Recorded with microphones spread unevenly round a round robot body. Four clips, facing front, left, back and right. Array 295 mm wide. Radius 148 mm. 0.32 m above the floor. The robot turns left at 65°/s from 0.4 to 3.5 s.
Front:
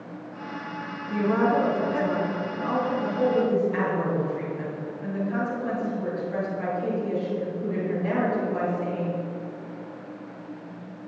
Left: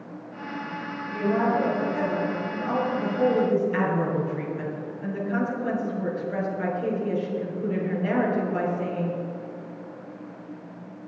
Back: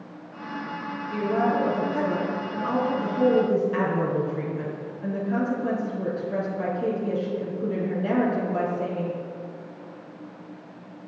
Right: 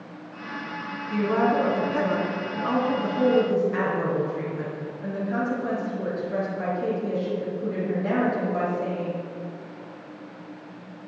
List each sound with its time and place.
1.1 s a woman speaking: 15° right, 4.5 m; by 9.2 s 170° right, 4.5 m